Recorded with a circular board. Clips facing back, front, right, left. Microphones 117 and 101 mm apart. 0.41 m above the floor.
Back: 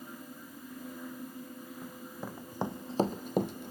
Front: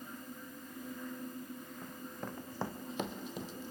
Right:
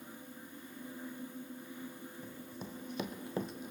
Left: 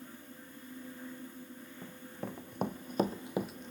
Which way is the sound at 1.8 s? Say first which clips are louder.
Back 2 dB, left 3 dB; 90° left.